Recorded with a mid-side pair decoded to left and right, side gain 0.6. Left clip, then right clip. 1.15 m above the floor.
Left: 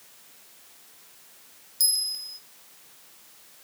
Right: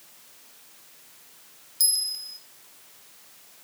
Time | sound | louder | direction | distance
1.8 | a bell | even | 5° right | 1.4 m